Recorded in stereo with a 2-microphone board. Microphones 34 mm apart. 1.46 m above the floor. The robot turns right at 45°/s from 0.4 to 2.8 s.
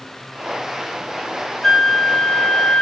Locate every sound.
1.6 s a flute: 5° left, 0.5 m; by 2.8 s 55° left, 0.5 m